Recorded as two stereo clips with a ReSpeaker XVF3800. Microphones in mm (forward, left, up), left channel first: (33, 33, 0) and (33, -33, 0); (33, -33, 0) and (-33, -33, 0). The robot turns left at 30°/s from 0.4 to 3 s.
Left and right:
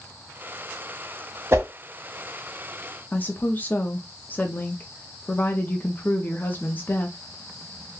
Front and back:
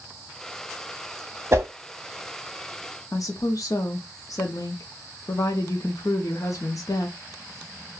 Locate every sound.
1.5 s a whoosh: 135° right, 0.6 m; by 1.7 s 140° right, 0.6 m
3.1 s a woman speaking: 25° left, 0.6 m